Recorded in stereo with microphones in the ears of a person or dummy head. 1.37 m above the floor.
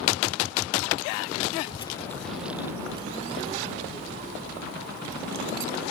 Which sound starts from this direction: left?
A child speaking, at 1.6 s.